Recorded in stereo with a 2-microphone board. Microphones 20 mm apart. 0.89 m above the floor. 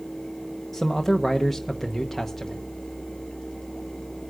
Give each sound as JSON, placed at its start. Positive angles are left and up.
{"t": 0.7, "sound": "a man speaking", "side_deg": 5, "distance_m": 0.9}